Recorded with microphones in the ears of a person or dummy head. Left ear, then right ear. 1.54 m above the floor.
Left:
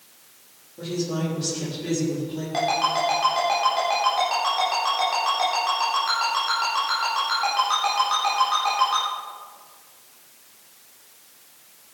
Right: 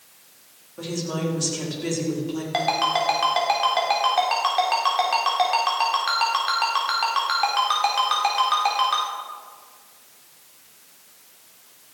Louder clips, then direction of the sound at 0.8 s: Even; 50° right (ahead or behind).